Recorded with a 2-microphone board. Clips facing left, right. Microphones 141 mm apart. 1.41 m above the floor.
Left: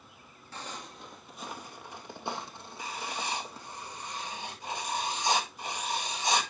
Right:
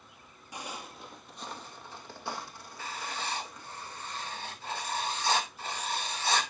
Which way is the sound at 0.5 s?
15° right (ahead or behind).